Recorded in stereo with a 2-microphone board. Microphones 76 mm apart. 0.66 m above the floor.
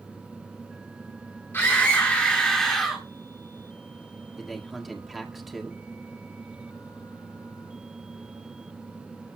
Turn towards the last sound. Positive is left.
turn(degrees=0)  # may be behind; listen again after turning